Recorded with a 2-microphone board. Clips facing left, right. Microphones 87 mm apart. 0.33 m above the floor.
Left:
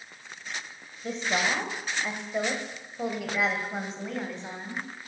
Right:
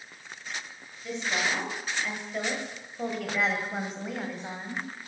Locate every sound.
1.0 s a woman speaking: 45° left (ahead or behind), 1.8 m; by 4.8 s 15° right (ahead or behind), 2.5 m